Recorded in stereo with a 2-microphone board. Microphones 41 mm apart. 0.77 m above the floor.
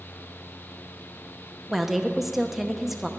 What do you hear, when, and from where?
1.7 s a woman speaking: 5° right (ahead or behind), 0.7 m